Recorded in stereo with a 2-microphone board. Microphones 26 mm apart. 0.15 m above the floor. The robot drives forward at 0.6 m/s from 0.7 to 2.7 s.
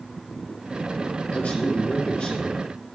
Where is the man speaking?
55° left (ahead or behind), 3 m; by 2.6 s 45° left (ahead or behind), 3.5 m.